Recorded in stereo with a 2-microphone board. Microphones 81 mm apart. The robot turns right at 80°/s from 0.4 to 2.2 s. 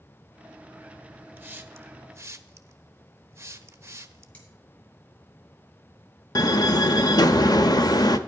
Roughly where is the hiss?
Right.